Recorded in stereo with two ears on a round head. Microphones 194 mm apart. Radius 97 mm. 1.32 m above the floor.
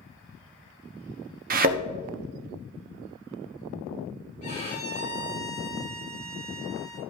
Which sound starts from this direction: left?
A violin, at 4.4 s.